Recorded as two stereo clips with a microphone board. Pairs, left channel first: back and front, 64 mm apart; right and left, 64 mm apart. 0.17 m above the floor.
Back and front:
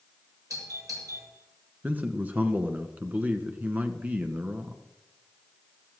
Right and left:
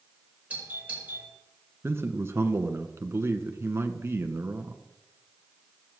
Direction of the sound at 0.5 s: 25° left.